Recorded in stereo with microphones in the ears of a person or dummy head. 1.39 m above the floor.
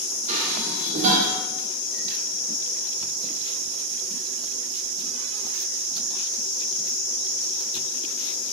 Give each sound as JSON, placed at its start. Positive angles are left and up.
{"t": 0.3, "sound": "dishes clattering", "side_deg": -45, "distance_m": 0.8}